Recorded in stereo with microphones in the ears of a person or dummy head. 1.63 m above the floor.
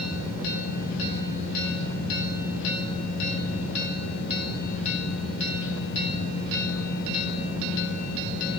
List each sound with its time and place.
0.0 s a fan: 50° left (ahead or behind), 5 m